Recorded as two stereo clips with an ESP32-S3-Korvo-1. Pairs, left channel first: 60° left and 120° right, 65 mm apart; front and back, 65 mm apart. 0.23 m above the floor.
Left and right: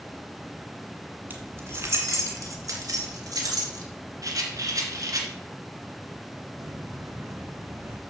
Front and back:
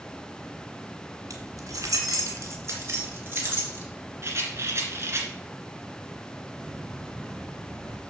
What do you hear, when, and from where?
1.3 s keys jangling: 175° right, 1.9 m; by 3.8 s 120° right, 3.5 m
4.2 s a rattle: 135° right, 1.9 m
6.6 s footsteps: 100° right, 2.5 m; by 8.0 s 75° right, 2.5 m